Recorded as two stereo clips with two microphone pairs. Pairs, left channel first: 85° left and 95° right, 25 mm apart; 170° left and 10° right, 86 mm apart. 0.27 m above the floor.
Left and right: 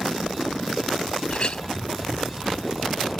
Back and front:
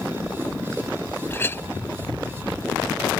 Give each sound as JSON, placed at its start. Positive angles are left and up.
{"t": 1.3, "sound": "a clink", "azimuth_deg": 115}